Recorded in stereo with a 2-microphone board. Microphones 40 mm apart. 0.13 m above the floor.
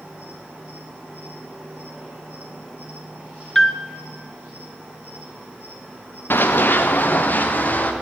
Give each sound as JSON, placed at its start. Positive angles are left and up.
{"t": 0.0, "sound": "an insect", "side_deg": -25, "distance_m": 6.0}
{"t": 3.5, "sound": "a piano", "side_deg": 10, "distance_m": 0.6}
{"t": 6.3, "sound": "running footsteps", "side_deg": 70, "distance_m": 1.1}